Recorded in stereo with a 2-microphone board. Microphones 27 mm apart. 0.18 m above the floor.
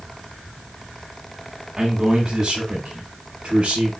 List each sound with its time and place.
1.8 s a man speaking: 15° right (ahead or behind), 1.0 m; by 3.9 s 45° right (ahead or behind), 2 m